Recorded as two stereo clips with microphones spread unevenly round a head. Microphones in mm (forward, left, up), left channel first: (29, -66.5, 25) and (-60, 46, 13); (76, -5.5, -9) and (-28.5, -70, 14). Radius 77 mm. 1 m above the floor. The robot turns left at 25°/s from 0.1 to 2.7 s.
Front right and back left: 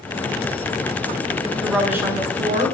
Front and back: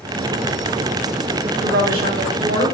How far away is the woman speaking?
About 3 m.